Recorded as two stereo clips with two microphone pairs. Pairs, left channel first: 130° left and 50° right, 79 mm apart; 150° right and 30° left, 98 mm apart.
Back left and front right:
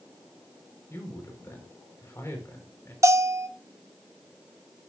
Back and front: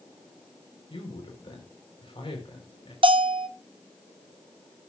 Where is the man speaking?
175° right, 4.5 m.